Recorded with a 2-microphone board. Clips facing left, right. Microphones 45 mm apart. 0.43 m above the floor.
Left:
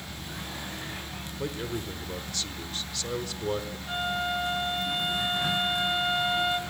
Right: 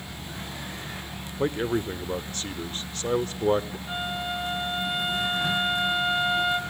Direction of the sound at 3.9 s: Centre (ahead or behind).